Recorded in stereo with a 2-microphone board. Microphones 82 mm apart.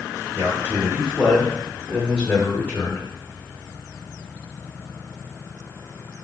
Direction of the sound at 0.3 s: 30° right (ahead or behind).